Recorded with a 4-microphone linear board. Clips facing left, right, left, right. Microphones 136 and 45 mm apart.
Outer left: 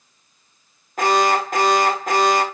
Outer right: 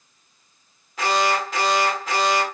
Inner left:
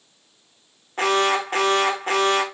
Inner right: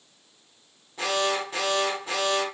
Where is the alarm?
50° left (ahead or behind), 1.5 m.